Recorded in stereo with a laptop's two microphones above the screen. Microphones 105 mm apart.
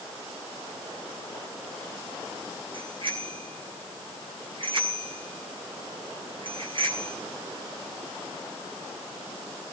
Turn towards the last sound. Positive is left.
turn(degrees=-55)  # may be behind; listen again after turning